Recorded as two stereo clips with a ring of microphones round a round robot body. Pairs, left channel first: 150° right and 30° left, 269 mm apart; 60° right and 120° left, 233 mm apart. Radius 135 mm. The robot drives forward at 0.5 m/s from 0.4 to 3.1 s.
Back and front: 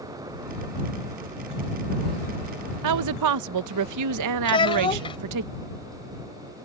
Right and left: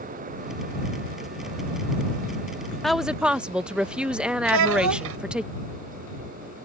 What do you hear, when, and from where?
2.8 s a woman speaking: 30° left; by 5.5 s 35° left
4.5 s a child speaking: 140° left